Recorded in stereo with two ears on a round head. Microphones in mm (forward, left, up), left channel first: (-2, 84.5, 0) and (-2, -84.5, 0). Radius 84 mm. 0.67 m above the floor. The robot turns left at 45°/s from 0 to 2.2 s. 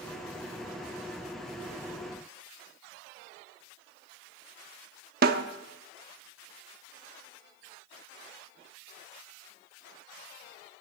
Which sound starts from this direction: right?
A snare drum, at 5.2 s.